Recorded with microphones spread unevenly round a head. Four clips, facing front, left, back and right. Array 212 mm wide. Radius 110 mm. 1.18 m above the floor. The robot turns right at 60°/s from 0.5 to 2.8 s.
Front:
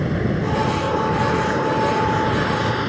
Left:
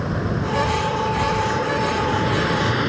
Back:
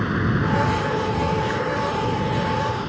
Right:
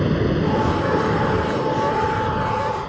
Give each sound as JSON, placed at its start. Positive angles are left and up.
{"t": 0.0, "sound": "running water", "azimuth_deg": -95}